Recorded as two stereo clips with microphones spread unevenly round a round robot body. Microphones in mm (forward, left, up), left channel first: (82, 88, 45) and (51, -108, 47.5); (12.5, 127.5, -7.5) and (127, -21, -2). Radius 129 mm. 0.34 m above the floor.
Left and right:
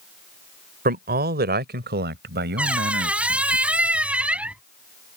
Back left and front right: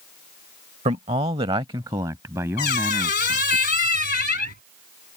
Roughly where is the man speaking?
Right.